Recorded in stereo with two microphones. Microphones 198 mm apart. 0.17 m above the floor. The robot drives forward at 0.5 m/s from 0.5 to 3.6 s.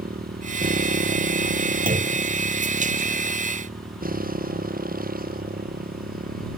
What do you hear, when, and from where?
0.0 s a motorcycle: 50° right (ahead or behind); by 6.6 s 45° right (ahead or behind)
1.9 s a clunk: 45° right (ahead or behind); by 2.2 s 40° right (ahead or behind)